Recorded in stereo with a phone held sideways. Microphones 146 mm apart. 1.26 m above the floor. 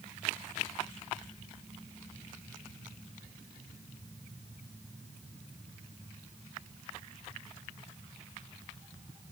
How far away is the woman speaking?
No woman speaking in this recording.